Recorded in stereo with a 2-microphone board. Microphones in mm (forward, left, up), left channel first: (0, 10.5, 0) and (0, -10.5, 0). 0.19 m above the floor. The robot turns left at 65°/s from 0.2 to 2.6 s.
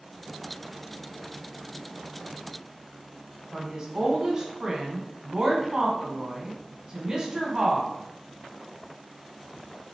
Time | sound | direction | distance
3.5 | a woman speaking | 30° right (ahead or behind) | 1.5 m